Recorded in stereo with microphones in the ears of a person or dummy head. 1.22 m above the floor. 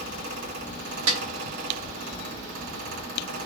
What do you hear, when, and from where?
0.0 s a fan: 75° right (ahead or behind), 3.5 m
1.1 s a snare drum: 80° right, 2.5 m